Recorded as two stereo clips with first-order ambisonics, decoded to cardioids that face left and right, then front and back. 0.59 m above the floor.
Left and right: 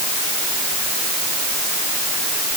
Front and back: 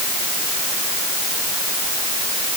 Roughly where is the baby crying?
I don't hear a baby crying.